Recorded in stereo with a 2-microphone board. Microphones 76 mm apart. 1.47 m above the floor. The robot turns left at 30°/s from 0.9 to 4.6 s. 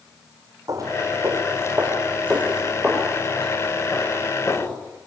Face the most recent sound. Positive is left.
turn(degrees=30)  # may be behind; listen again after turning